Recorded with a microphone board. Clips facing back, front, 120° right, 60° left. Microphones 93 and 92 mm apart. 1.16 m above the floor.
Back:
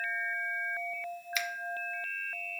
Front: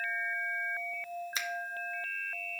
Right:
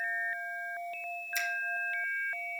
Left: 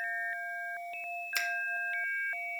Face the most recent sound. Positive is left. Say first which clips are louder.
# back 6 dB, right 1 dB
turn(degrees=55)